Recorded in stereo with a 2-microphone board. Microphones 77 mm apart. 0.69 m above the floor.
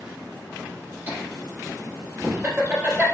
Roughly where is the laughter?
Right.